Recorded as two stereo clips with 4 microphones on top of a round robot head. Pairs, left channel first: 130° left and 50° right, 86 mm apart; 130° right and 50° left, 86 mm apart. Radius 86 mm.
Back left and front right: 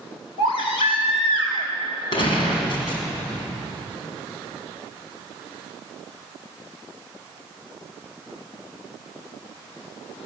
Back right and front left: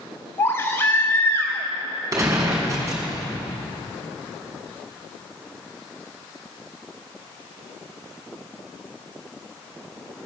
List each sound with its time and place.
0.4 s a baby crying: 160° left, 4.5 m
2.1 s a gunshot: 100° left, 5 m